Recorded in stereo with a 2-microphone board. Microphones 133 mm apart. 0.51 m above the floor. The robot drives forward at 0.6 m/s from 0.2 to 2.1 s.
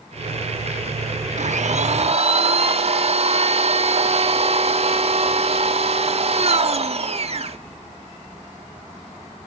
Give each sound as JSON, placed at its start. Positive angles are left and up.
{"t": 1.4, "sound": "a blender", "side_deg": -60, "distance_m": 0.7}